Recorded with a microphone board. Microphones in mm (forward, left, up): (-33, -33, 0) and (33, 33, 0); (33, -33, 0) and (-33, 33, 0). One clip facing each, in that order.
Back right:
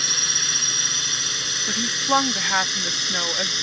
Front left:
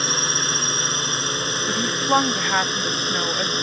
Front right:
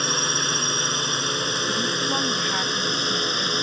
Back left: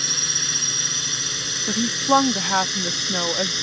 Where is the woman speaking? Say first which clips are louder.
Front left 1 dB, back left 10 dB; 130° left.